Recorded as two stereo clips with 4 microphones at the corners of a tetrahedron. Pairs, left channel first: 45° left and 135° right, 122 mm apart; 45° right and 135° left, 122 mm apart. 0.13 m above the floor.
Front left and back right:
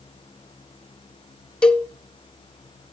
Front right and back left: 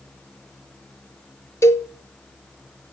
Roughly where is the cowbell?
Ahead right.